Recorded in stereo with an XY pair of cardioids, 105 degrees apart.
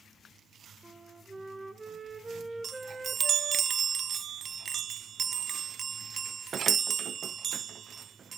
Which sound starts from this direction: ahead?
A flute, at 0.8 s.